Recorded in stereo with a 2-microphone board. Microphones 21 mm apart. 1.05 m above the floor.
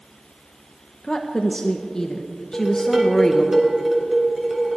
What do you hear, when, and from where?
1.0 s a woman speaking: 30° left (ahead or behind), 1.0 m
2.5 s dishes clattering: 20° right (ahead or behind), 3 m